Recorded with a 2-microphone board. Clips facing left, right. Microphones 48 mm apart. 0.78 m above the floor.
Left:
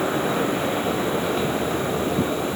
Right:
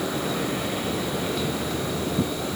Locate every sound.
Only background noise.